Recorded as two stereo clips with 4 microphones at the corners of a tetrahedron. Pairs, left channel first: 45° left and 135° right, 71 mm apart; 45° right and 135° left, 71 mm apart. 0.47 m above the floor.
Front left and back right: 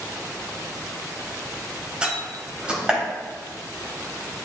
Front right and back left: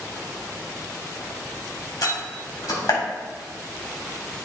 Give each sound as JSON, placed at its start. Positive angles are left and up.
{"t": 2.0, "sound": "a door slam", "azimuth_deg": -60, "distance_m": 1.9}